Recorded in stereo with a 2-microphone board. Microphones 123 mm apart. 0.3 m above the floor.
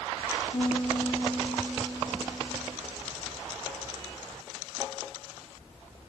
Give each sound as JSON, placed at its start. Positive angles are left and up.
{"t": 0.5, "sound": "a piano", "side_deg": 35, "distance_m": 1.0}